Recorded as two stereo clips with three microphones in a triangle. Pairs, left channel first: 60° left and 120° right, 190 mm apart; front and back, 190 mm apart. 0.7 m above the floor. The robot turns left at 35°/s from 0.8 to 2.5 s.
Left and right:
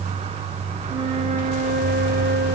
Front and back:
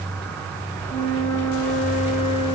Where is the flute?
50° right, 1.6 m; by 2.6 s 105° right, 1.6 m.